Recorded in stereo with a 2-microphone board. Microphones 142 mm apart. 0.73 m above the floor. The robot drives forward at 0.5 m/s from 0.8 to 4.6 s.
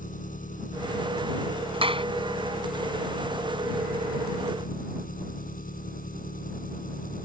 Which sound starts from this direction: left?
An engine running, at 0.0 s.